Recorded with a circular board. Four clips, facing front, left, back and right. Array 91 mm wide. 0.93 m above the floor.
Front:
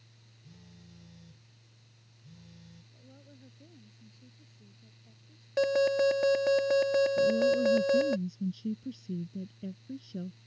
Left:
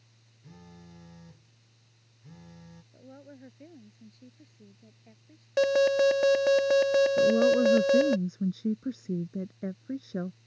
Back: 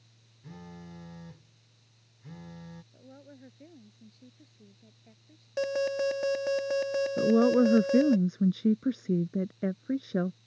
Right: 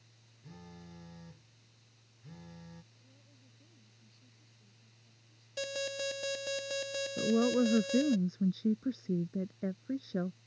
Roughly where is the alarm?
Left.